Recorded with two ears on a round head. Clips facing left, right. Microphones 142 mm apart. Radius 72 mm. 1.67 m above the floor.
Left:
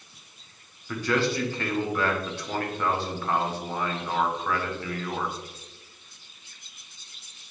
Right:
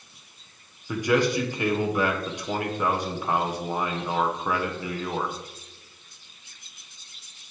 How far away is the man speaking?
About 1.2 m.